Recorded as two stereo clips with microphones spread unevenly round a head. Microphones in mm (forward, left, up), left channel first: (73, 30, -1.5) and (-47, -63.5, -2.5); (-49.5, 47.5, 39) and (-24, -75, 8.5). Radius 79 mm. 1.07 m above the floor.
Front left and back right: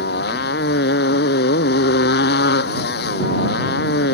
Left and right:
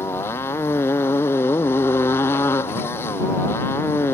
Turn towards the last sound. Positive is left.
turn(degrees=25)